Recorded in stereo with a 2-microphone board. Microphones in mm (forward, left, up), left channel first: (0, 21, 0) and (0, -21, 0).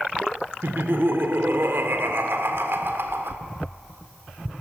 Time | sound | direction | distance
0.6 | laughter | 65° right (ahead or behind) | 1.8 m